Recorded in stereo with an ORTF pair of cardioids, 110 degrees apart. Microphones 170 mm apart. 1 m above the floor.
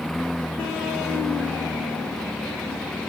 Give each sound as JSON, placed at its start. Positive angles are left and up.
{"t": 0.0, "sound": "a lawn mower", "azimuth_deg": 0}